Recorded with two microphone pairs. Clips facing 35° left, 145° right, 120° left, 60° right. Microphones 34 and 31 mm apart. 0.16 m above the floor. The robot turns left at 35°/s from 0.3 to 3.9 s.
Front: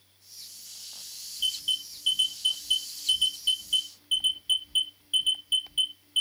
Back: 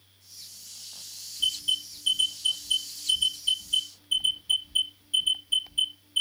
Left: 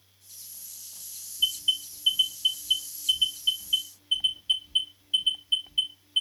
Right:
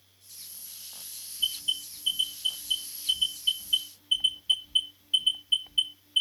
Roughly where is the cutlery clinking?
I don't hear cutlery clinking.